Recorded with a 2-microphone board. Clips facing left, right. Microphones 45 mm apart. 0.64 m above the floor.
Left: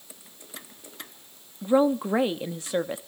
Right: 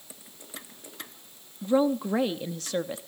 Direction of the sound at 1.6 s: 20° left (ahead or behind).